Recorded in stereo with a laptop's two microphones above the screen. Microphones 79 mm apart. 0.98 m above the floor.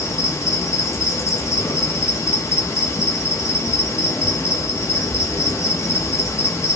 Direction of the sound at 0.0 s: 40° left (ahead or behind).